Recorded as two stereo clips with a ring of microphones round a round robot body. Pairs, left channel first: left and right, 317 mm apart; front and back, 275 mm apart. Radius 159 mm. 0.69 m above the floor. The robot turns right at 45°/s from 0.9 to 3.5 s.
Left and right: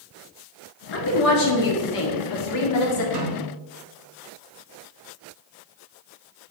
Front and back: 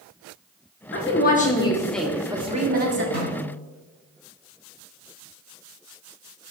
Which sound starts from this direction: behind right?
A snare drum, at 3.1 s.